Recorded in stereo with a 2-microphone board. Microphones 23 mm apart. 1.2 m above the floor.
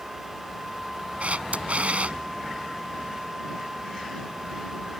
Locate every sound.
1.2 s a camera shutter: 70° right (ahead or behind)